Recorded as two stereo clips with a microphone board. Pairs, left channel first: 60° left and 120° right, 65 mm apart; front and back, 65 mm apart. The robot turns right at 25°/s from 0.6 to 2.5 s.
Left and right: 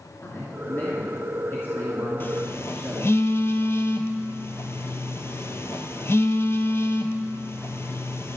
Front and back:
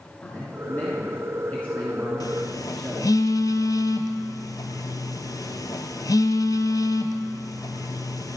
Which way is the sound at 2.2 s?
5° left.